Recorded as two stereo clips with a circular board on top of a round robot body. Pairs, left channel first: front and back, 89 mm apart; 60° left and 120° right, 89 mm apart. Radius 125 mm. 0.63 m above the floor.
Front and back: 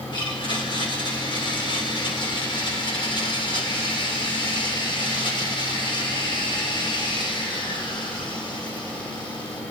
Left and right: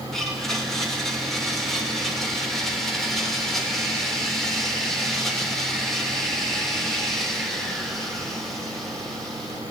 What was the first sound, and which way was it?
A blender, 25° right.